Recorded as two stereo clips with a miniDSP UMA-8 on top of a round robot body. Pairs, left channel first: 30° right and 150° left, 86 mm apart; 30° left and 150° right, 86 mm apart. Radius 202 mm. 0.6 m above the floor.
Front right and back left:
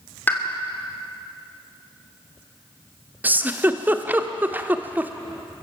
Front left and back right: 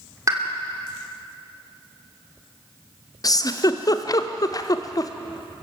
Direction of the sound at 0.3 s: 100° right.